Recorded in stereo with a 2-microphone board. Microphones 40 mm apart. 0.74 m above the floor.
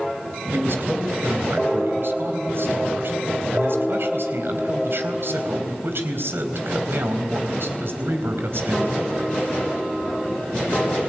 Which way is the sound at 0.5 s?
65° right (ahead or behind).